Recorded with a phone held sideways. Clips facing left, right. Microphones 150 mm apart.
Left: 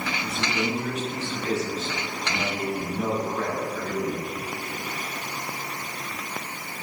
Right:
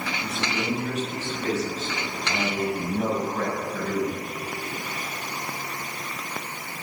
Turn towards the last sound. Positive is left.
turn(degrees=-60)  # may be behind; listen again after turning